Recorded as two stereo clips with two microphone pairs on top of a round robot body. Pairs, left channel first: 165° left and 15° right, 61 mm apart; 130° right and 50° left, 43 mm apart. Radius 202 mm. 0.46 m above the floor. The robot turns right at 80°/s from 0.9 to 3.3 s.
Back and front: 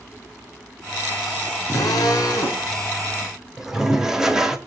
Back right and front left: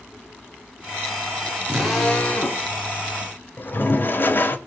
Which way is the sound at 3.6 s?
95° right.